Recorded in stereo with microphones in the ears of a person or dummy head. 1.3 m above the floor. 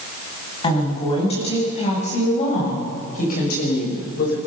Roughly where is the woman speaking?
Left.